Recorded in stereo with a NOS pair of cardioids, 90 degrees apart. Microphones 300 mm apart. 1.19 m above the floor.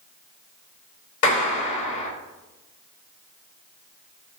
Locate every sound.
1.2 s a clap: 70° left, 2 m